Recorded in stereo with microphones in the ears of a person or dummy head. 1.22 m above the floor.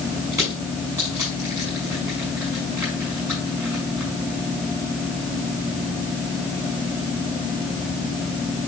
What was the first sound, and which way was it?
Crushing, 15° right (ahead or behind).